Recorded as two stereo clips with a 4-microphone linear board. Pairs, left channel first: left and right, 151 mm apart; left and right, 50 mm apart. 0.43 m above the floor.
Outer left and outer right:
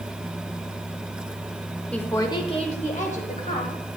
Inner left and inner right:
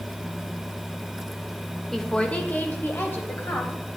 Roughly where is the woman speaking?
Centre.